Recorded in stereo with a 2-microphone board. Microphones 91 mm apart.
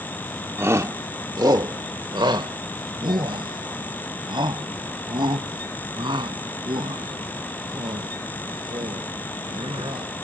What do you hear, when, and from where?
0.6 s a shout: 25° right (ahead or behind); by 10.1 s 60° right (ahead or behind)